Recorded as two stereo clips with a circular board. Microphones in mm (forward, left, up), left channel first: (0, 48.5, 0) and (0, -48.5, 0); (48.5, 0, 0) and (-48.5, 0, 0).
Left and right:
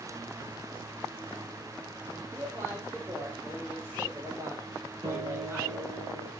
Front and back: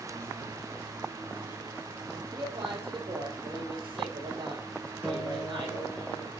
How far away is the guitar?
About 3 m.